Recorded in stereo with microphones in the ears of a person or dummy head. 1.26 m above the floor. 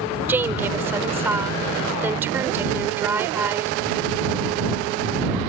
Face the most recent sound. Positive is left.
turn(degrees=-15)  # may be behind; listen again after turning